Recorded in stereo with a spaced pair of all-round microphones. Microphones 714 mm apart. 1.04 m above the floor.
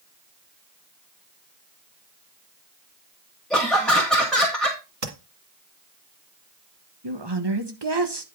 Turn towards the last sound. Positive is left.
turn(degrees=-35)  # may be behind; listen again after turning